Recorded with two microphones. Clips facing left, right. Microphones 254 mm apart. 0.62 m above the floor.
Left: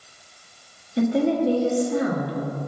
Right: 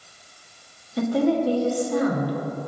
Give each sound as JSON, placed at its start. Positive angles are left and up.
{"t": 1.0, "sound": "a woman speaking", "side_deg": 25, "distance_m": 1.3}